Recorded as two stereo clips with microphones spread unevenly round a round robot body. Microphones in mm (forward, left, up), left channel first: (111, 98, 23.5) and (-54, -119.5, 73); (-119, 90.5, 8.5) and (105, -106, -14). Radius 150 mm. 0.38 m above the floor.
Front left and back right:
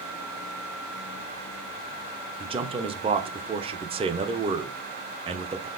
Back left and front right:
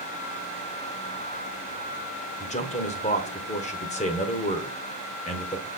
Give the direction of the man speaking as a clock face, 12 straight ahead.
6 o'clock.